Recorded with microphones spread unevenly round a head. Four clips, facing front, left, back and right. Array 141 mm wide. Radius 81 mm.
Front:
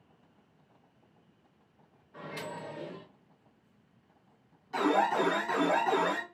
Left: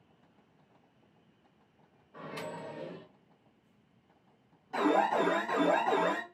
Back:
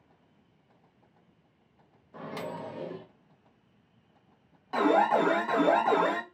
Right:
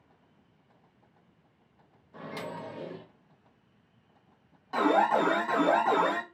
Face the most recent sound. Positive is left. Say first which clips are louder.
# right 3 dB, back 4 dB
turn(degrees=-145)